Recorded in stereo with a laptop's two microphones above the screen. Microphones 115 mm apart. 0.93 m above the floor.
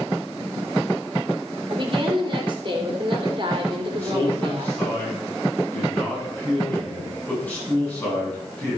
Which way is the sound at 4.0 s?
15° left (ahead or behind).